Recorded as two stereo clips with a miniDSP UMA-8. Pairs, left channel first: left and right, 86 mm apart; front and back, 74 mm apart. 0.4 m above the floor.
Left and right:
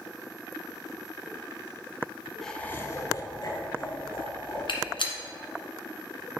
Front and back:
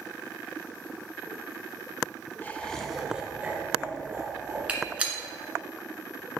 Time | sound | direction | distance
2.4 | laughter | 10° left | 0.9 m
4.7 | a gunshot | 105° left | 1.5 m